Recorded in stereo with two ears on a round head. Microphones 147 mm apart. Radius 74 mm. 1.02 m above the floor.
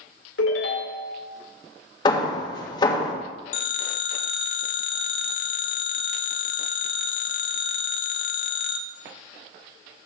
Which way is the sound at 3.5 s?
55° left (ahead or behind).